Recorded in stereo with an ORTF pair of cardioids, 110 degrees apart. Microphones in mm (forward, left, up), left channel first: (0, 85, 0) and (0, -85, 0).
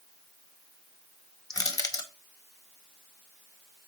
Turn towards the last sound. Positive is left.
turn(degrees=20)